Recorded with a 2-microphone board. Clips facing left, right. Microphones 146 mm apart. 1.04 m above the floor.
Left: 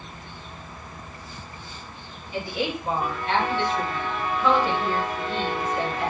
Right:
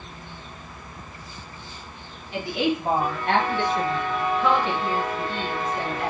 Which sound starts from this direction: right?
A woman speaking, at 2.3 s.